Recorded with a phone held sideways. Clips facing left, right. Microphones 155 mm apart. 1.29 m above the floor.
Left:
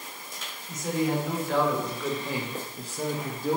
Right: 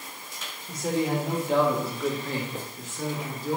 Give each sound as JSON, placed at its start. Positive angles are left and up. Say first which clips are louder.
{"t": 0.7, "sound": "a man speaking", "louder": "right 1 dB", "side_deg": -30, "distance_m": 1.3}